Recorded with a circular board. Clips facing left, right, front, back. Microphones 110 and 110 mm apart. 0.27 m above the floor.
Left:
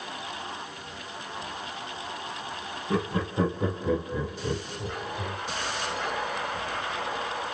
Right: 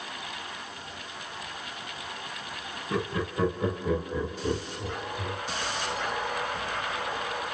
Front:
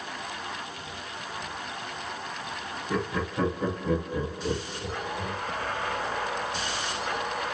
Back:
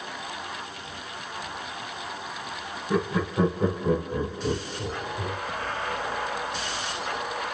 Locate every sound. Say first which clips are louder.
2.9 s laughter: left 2 dB, back 4 dB; 100° left, 1.5 m; by 5.4 s 165° right, 1.7 m